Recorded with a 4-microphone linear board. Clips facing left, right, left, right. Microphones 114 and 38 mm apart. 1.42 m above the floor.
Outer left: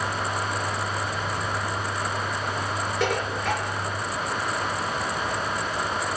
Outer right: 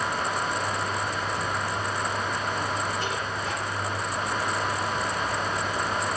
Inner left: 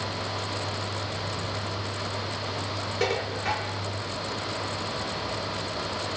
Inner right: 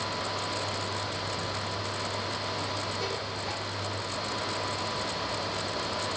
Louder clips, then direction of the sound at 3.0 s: Outer left 4 dB, inner left 6 dB; 70° left (ahead or behind).